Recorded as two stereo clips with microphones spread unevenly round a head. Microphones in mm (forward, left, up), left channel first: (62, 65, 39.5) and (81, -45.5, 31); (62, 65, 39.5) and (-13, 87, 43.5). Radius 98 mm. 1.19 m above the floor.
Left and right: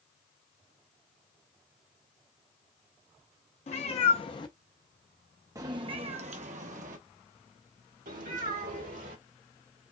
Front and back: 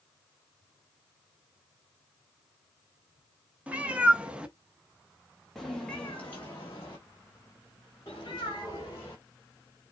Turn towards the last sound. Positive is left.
turn(degrees=-90)